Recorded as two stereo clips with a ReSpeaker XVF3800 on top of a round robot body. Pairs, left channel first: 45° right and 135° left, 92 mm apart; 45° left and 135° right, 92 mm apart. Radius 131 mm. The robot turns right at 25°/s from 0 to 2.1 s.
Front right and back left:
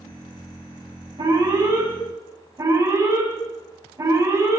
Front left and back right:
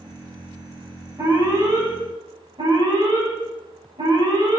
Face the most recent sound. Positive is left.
turn(degrees=-170)